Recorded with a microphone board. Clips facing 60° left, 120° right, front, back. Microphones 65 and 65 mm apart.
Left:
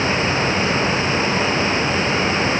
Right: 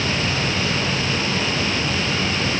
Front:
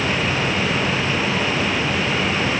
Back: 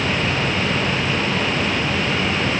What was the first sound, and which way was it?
Only background noise.